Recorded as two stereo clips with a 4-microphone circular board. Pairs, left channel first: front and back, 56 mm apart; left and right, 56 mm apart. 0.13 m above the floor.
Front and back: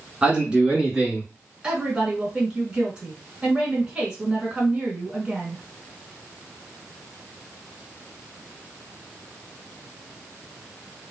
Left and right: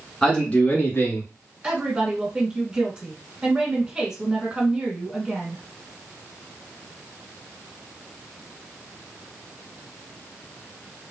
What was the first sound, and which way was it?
A man speaking, 160° left.